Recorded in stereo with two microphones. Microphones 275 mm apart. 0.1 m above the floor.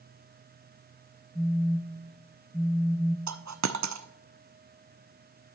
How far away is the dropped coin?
About 0.5 m.